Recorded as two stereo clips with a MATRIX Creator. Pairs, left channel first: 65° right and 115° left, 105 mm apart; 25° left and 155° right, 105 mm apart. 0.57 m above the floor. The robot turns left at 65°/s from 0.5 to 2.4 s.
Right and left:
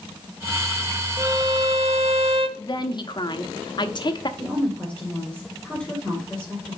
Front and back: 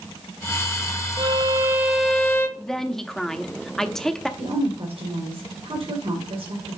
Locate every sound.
1.2 s a violin: 170° left, 0.7 m; by 2.5 s 90° left, 0.7 m
2.6 s a woman speaking: 60° right, 0.9 m
4.4 s a woman speaking: 145° right, 3 m